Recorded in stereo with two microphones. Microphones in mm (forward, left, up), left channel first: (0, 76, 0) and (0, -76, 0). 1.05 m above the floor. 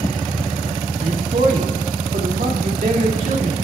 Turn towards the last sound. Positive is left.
turn(degrees=-65)  # may be behind; listen again after turning